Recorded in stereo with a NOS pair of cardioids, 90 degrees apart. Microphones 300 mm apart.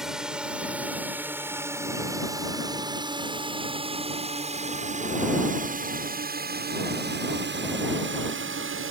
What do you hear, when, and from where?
0.0 s a drone: straight ahead; by 8.9 s 45° right